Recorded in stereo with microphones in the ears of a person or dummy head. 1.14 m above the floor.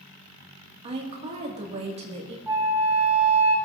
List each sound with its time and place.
0.8 s a woman speaking: 35° right (ahead or behind), 1.7 m
2.5 s a flute: 15° right (ahead or behind), 0.9 m